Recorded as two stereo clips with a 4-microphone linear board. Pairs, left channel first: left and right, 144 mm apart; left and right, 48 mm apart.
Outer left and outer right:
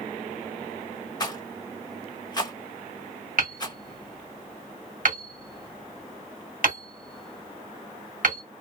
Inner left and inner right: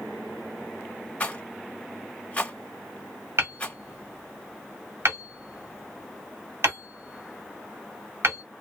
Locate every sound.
1.2 s a rattle: 30° left (ahead or behind), 0.7 m
3.4 s hammering: 75° right (ahead or behind), 1.6 m